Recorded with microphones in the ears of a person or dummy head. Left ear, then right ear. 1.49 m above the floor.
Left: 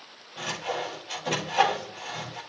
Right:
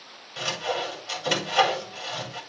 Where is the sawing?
55° right (ahead or behind), 5 m.